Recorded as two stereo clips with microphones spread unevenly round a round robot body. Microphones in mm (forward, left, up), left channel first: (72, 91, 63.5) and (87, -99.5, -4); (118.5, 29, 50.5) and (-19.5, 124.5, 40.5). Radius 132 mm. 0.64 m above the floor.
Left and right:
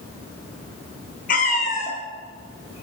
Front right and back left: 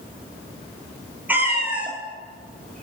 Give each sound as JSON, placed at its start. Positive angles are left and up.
{"t": 1.3, "sound": "a cat meowing", "azimuth_deg": 65, "distance_m": 1.7}